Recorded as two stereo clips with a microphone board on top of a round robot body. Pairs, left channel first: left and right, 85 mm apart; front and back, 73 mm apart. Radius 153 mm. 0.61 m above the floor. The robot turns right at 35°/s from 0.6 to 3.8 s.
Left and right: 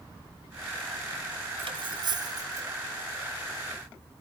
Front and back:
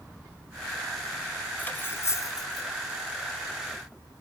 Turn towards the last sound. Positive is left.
turn(degrees=5)